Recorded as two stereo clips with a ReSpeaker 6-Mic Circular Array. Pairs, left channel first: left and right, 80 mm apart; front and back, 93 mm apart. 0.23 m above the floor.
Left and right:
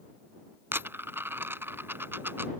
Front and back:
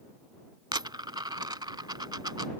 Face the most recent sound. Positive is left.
turn(degrees=-145)